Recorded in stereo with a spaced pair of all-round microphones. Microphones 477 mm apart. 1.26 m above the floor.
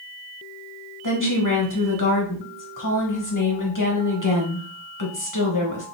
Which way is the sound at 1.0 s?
40° left (ahead or behind).